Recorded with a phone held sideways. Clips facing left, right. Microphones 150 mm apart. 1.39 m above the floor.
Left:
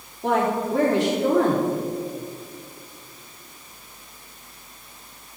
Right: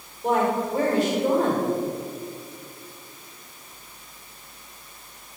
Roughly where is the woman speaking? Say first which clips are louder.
Even; left.